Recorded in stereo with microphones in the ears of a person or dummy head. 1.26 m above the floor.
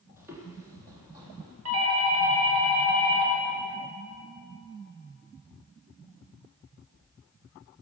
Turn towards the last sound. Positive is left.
turn(degrees=-70)  # may be behind; listen again after turning